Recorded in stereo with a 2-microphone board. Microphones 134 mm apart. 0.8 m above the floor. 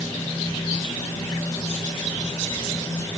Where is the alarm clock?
I don't hear an alarm clock.